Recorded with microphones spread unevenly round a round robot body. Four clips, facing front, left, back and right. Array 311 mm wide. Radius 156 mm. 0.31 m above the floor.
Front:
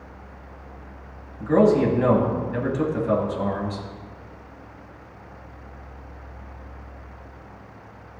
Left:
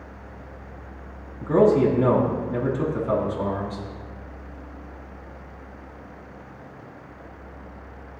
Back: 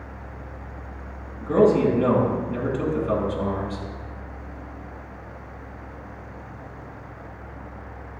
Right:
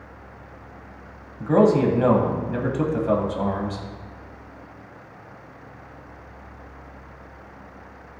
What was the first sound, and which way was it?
A man speaking, 70° right.